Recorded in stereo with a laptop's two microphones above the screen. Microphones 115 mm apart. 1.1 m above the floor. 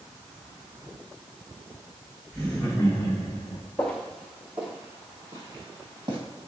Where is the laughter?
5° left (ahead or behind), 0.9 m; by 3.6 s 60° left (ahead or behind), 1.0 m.